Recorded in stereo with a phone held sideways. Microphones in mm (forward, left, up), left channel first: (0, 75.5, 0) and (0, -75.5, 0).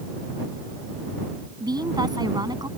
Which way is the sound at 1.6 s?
25° right (ahead or behind).